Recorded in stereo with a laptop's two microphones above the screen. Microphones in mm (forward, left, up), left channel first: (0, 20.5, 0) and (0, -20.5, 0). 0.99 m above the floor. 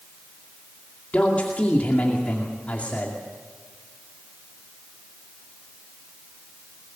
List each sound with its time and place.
1.1 s a man speaking: 35° left (ahead or behind), 2.5 m